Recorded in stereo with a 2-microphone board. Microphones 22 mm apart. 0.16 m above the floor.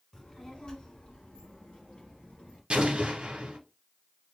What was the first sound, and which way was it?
A child speaking, 20° left (ahead or behind).